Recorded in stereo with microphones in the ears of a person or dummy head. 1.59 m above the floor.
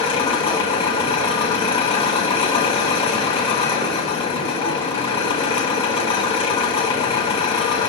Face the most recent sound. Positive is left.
turn(degrees=35)  # may be behind; listen again after turning